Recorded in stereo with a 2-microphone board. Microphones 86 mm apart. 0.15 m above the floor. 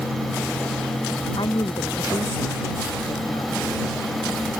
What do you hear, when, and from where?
1.4 s a woman speaking: 70° left (ahead or behind)